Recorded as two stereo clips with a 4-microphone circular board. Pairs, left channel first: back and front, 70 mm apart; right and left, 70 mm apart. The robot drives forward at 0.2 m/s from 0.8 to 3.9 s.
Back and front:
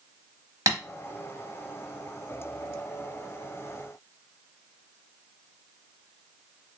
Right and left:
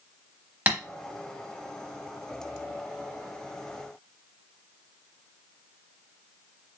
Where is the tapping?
25° left, 0.9 m.